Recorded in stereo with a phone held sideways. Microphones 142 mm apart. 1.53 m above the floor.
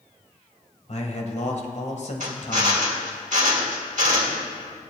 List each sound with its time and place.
0.9 s a man speaking: 55° left (ahead or behind), 1.6 m
2.2 s a drill: 60° right (ahead or behind), 1.7 m